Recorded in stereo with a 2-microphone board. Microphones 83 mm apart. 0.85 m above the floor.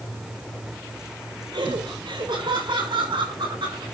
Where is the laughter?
75° right (ahead or behind), 4 m.